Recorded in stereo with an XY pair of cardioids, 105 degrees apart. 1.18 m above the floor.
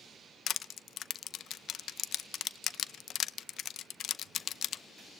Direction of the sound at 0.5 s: 65° left.